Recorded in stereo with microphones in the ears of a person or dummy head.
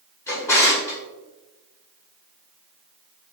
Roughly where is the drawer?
Centre.